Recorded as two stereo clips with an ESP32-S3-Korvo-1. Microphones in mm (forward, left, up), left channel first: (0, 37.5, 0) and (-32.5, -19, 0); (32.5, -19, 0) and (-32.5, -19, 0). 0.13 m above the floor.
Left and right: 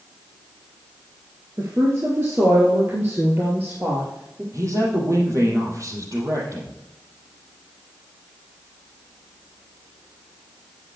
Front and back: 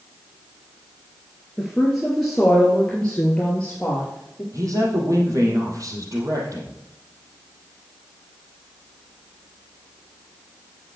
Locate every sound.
1.6 s a woman speaking: 95° right, 2 m; by 4.4 s 70° right, 3 m
4.5 s a man speaking: 155° right, 4.5 m